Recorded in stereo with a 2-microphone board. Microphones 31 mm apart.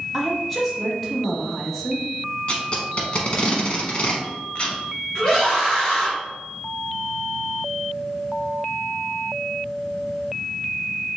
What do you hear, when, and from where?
0.1 s a woman speaking: 5° left (ahead or behind), 1.0 m
2.5 s tape being pulled: 35° left (ahead or behind), 0.9 m
5.2 s a scream: 25° left (ahead or behind), 1.4 m